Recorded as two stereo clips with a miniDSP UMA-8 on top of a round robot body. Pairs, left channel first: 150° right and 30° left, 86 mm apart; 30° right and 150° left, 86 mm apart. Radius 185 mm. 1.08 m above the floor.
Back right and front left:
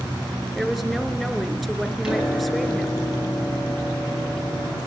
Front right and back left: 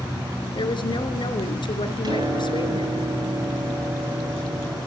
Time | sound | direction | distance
0.6 | a woman speaking | 60° right | 4 m
2.0 | a piano | 110° left | 7.5 m